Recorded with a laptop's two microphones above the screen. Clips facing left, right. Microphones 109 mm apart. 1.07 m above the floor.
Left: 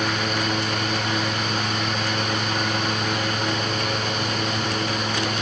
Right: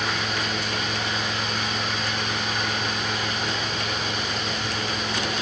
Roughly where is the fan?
Left.